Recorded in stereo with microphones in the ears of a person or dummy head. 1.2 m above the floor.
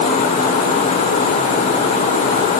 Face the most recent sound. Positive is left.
No sound to turn to.